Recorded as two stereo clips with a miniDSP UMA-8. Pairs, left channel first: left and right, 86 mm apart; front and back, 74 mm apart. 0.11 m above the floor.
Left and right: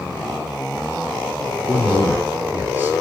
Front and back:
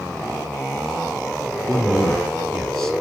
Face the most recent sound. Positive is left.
turn(degrees=-75)